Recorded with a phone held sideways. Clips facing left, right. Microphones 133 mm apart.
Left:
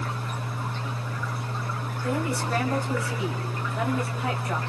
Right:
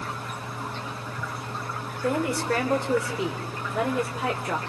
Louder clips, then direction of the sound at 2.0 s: Right 3 dB; 85° right.